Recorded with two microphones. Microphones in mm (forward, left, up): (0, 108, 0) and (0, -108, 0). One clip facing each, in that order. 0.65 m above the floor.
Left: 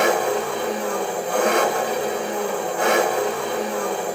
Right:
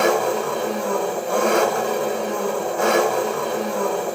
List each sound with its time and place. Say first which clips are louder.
0.0 s an engine running: right 1 dB; 45° right (ahead or behind), 1.2 m